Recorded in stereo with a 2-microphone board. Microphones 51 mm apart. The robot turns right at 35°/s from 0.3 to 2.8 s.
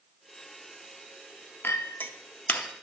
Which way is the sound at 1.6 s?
45° left (ahead or behind).